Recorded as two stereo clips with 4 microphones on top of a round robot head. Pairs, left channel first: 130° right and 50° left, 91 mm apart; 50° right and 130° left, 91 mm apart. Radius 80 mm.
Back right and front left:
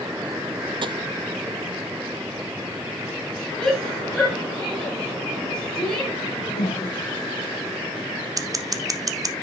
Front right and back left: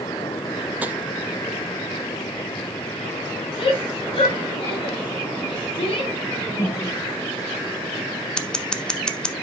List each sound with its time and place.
0.8 s tapping: 55° left, 0.8 m
3.6 s a shout: 45° right, 6.5 m
6.2 s a whoosh: 120° right, 3.5 m
8.4 s scissors: 25° left, 1.1 m